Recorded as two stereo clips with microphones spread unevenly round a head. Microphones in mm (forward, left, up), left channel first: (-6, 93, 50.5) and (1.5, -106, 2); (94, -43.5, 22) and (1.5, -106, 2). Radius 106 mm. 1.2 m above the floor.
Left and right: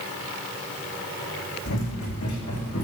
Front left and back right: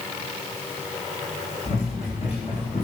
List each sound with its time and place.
1.6 s running footsteps: 85° left, 4.5 m